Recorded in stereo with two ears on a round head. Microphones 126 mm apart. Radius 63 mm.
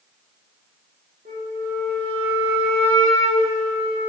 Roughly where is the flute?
Right.